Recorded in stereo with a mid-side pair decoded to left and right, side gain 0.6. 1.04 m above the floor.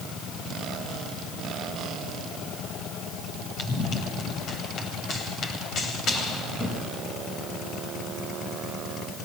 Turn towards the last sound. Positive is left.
turn(degrees=50)